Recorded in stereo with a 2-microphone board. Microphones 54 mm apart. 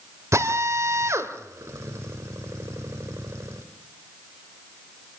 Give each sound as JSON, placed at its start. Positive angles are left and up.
{"t": 0.3, "sound": "a drill", "side_deg": -60, "distance_m": 2.5}